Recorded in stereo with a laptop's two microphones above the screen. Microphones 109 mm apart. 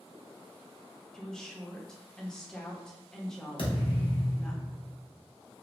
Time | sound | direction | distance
1.1 | a woman speaking | 5° left (ahead or behind) | 0.7 m
3.6 | a thud | 55° left (ahead or behind) | 0.8 m